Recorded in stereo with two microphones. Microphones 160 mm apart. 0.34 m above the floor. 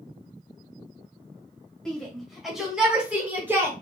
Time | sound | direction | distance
1.9 | a shout | 5° left (ahead or behind) | 2 m